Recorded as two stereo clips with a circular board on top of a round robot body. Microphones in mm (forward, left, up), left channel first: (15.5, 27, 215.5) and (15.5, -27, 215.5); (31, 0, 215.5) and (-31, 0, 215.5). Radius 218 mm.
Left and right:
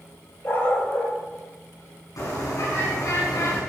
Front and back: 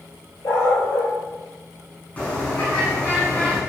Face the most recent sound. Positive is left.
turn(degrees=70)